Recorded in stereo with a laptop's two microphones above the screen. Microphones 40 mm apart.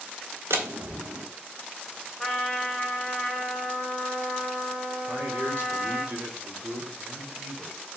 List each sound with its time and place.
0.5 s a door slam: 90° right, 1.6 m
2.2 s a trumpet: centre (ahead or behind), 2 m
5.0 s a man speaking: 65° right (ahead or behind), 2.5 m